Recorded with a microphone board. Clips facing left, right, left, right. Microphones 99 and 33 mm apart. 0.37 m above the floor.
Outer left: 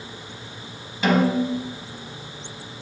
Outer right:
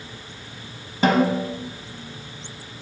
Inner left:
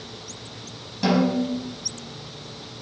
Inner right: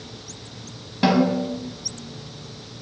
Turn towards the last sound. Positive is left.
turn(degrees=-40)  # may be behind; listen again after turning